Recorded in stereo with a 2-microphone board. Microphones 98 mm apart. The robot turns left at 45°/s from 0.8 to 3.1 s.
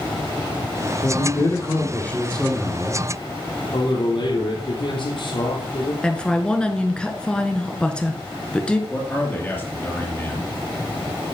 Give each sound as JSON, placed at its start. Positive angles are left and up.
{"t": 1.0, "sound": "a man speaking", "azimuth_deg": 70, "distance_m": 2.0}
{"t": 3.7, "sound": "a man speaking", "side_deg": 60, "distance_m": 3.5}
{"t": 6.0, "sound": "a woman speaking", "side_deg": 10, "distance_m": 1.1}
{"t": 8.9, "sound": "a man speaking", "side_deg": 20, "distance_m": 2.5}